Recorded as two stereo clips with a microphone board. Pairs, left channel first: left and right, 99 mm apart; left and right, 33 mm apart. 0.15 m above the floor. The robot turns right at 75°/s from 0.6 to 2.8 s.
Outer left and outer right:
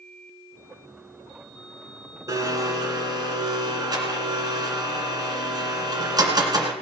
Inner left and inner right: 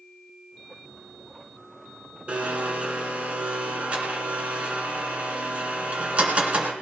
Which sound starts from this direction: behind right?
A blender, at 2.3 s.